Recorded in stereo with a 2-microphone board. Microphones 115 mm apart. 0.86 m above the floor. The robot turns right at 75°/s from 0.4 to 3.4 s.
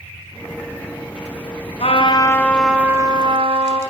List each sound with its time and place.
1.8 s a trumpet: 115° left, 5 m; by 3.8 s 125° right, 5 m